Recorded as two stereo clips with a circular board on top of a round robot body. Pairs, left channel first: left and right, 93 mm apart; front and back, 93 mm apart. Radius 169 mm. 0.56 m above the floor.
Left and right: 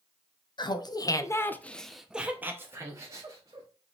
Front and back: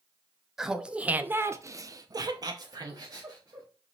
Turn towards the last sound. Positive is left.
turn(degrees=-135)